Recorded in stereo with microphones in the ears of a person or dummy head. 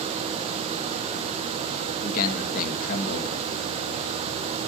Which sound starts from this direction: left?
A man speaking, at 2.0 s.